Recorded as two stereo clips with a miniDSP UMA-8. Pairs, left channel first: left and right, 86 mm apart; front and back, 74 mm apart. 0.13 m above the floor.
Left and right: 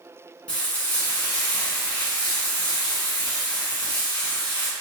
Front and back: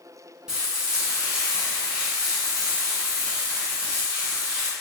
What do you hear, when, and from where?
0.5 s frying: 120° left, 1.1 m